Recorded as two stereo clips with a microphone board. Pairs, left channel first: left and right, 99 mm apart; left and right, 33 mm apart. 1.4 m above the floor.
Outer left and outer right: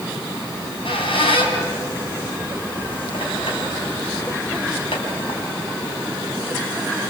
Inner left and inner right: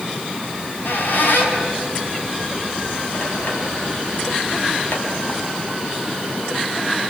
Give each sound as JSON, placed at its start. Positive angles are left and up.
{"t": 0.5, "sound": "a squeak", "side_deg": 65, "distance_m": 5.5}